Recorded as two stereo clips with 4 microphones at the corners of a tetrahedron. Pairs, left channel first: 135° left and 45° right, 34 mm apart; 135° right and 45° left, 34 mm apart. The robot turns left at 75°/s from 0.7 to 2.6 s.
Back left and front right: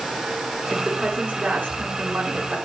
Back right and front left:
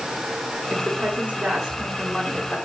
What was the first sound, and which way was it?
A woman speaking, 55° left.